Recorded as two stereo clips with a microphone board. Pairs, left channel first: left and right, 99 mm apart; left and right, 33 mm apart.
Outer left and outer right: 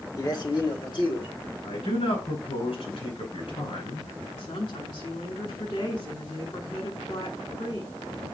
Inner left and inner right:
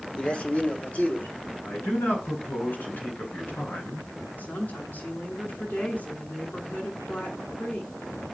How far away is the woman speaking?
About 5.5 m.